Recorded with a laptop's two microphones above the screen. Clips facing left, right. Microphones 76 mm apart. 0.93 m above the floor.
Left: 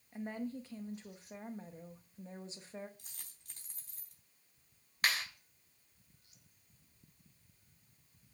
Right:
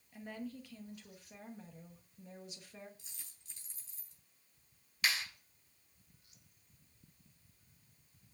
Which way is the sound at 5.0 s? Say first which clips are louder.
Left 2 dB; 50° left (ahead or behind).